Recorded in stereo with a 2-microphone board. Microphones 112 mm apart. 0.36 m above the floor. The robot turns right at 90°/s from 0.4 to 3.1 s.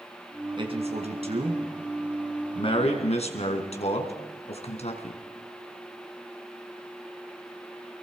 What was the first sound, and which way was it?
A man speaking, 45° right (ahead or behind).